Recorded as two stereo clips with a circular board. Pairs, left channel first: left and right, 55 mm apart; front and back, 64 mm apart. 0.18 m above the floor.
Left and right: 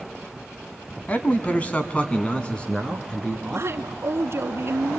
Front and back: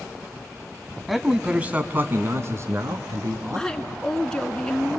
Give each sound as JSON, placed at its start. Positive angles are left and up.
{"t": 1.1, "sound": "a man speaking", "azimuth_deg": 90, "distance_m": 1.2}
{"t": 3.5, "sound": "a woman speaking", "azimuth_deg": -80, "distance_m": 1.7}